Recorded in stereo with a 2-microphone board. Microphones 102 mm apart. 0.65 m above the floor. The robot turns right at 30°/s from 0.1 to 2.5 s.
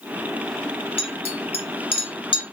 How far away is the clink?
About 0.6 m.